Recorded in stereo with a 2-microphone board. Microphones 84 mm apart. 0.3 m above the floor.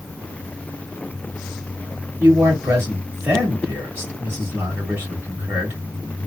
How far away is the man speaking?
About 1.4 m.